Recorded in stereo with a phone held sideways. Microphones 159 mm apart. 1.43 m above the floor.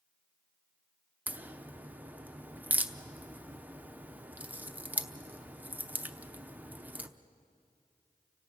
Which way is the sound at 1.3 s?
10° right (ahead or behind).